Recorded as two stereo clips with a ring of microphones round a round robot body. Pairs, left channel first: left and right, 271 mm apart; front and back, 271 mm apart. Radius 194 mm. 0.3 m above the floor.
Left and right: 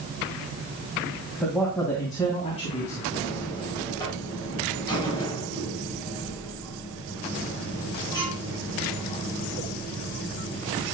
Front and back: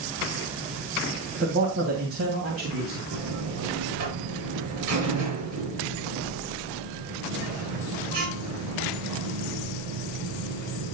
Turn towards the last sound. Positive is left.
turn(degrees=170)